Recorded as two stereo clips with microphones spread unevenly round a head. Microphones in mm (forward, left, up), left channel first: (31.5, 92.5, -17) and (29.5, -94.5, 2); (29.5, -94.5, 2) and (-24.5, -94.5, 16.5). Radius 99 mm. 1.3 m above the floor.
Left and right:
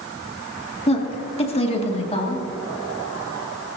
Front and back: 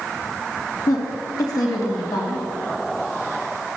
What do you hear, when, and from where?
0.9 s a woman speaking: 30° left, 2 m